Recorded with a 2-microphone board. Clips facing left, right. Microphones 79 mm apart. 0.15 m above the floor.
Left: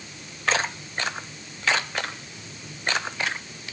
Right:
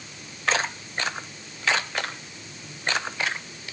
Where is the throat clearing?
I don't hear throat clearing.